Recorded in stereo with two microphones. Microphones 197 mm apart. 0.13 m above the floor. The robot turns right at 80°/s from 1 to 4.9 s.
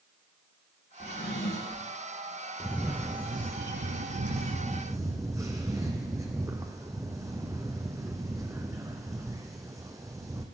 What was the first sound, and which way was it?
A drawer, 40° left.